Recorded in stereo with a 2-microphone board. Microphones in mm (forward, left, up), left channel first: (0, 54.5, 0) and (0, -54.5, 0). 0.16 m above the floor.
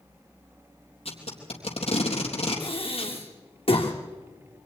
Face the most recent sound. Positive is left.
turn(degrees=65)  # may be behind; listen again after turning